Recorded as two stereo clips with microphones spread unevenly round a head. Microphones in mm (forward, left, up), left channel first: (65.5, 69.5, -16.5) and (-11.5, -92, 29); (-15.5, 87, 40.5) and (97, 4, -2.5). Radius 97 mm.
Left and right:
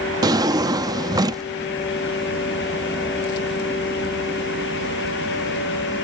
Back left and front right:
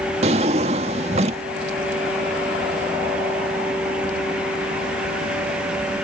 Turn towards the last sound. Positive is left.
turn(degrees=-95)